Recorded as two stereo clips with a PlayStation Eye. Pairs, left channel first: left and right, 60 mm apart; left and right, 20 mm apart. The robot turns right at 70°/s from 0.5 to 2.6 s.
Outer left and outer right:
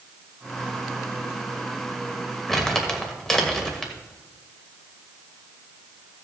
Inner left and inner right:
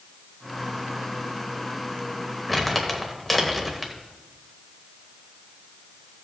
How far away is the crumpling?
About 1.7 m.